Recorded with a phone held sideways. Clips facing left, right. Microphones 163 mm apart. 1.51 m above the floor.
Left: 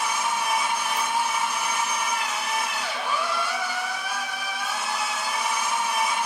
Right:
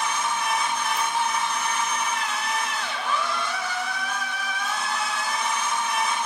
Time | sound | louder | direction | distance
0.0 | a machine running | even | 10° left (ahead or behind) | 0.8 m